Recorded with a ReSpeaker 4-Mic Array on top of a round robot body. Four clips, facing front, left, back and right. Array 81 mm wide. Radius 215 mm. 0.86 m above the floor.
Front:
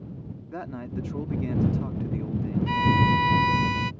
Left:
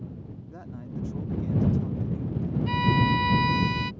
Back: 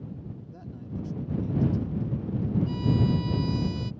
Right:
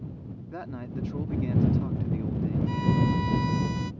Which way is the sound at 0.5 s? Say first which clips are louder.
Right 4 dB, front 8 dB; 25° right.